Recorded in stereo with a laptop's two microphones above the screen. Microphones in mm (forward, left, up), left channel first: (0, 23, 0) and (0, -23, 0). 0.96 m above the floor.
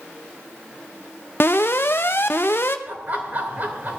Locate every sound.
1.4 s an alarm: 55° left (ahead or behind), 0.8 m
2.9 s laughter: 40° right (ahead or behind), 3 m